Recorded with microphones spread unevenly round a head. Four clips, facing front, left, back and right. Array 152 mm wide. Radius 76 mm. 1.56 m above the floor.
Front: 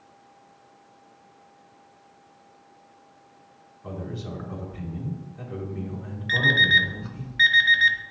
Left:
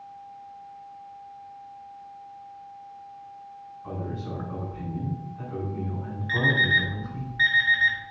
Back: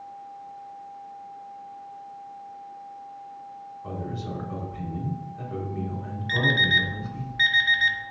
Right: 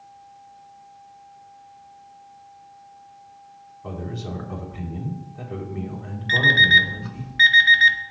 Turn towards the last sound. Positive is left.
turn(degrees=-55)